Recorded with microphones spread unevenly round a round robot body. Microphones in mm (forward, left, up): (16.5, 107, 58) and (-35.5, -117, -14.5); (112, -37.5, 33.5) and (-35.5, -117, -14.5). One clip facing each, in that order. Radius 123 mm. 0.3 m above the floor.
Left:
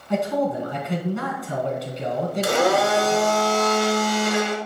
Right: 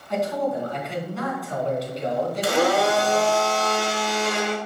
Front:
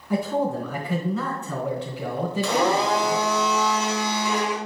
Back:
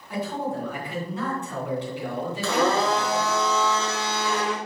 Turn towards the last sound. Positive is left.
turn(degrees=115)